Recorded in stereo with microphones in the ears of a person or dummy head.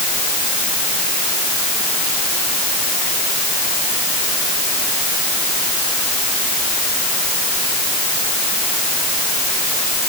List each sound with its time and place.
Only background noise.